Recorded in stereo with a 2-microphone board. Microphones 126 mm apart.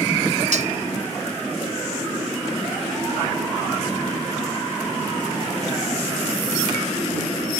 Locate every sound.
0.5 s cutlery clinking: 70° right (ahead or behind)